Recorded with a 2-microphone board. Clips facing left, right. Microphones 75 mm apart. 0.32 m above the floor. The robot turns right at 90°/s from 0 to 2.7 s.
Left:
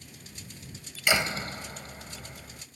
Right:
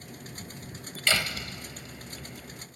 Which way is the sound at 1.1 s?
20° left.